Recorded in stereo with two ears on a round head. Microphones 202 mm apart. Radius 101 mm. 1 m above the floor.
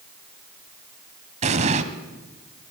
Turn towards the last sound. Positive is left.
turn(degrees=-30)  # may be behind; listen again after turning